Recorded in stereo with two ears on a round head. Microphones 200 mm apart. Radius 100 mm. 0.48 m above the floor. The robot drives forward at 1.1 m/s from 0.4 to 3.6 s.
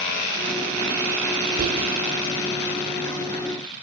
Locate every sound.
1.6 s whispering: 45° right (ahead or behind), 1.7 m